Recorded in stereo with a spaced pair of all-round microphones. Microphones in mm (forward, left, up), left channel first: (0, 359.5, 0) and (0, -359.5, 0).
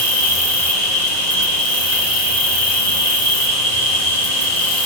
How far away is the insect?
About 4 m.